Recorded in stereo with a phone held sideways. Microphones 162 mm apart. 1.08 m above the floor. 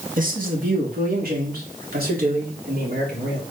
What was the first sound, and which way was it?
A man speaking, 65° right (ahead or behind).